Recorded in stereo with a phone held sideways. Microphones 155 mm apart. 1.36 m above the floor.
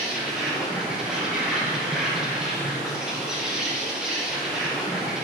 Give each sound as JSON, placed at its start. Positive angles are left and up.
{"t": 0.0, "sound": "an insect", "side_deg": -5, "distance_m": 1.6}